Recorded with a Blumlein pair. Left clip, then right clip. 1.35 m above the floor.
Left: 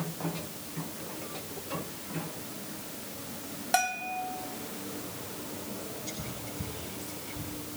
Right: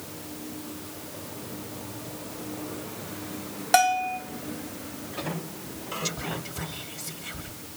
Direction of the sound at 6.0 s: 45° right.